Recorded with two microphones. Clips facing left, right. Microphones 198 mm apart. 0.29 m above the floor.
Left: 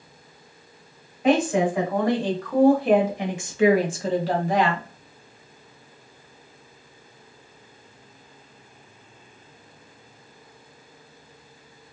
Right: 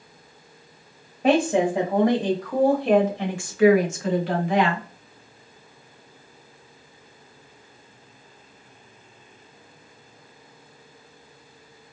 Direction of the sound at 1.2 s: 40° right (ahead or behind).